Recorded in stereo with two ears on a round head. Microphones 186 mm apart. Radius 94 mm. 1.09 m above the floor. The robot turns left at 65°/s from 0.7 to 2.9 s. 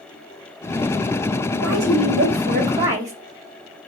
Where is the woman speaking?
80° right, 1.6 m; by 3.1 s 160° right, 1.6 m.